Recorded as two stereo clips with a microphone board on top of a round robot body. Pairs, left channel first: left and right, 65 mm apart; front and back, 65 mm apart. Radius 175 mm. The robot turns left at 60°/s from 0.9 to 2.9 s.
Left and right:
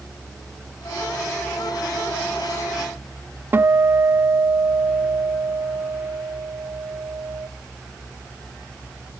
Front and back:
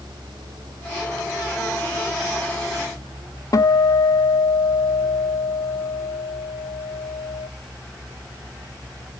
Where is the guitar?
30° right, 1.4 m.